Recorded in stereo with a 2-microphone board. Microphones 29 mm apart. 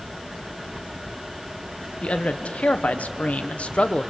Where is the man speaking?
50° left (ahead or behind), 1.3 m; by 4.1 s 40° left (ahead or behind), 1.0 m.